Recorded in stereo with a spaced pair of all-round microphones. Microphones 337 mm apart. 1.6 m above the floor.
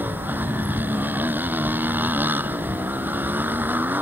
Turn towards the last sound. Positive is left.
turn(degrees=-5)  # may be behind; listen again after turning